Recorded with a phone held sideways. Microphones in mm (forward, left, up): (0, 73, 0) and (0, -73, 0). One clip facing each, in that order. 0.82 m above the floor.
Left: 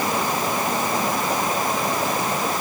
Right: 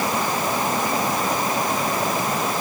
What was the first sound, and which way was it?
Only background noise.